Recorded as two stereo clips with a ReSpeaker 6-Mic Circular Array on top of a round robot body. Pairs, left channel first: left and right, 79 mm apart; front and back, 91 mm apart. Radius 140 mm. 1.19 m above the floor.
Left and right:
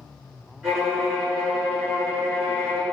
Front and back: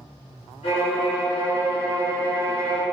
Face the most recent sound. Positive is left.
turn(degrees=-15)